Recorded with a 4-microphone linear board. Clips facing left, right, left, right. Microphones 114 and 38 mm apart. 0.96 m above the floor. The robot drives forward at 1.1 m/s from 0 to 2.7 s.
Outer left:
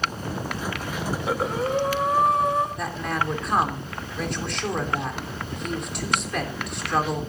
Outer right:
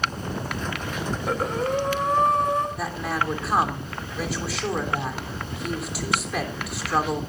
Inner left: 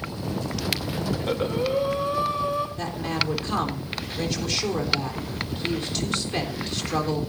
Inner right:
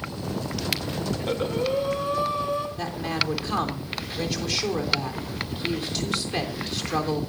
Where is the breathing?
5° left (ahead or behind), 1.0 m; by 2.7 s centre (ahead or behind), 2.5 m.